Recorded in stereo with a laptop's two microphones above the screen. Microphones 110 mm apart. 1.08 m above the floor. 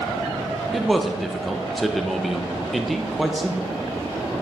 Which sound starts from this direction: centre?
A man speaking, at 0.7 s.